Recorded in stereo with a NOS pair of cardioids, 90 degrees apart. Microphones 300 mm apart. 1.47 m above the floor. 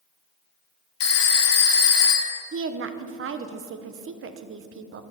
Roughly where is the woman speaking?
Ahead right.